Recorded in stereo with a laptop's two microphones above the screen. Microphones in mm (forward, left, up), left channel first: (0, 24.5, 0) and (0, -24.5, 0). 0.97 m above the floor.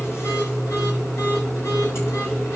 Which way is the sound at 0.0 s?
70° left (ahead or behind).